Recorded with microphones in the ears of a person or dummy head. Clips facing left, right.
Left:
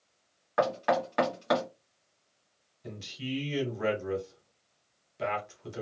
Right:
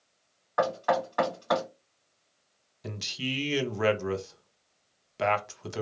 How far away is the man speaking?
About 0.7 m.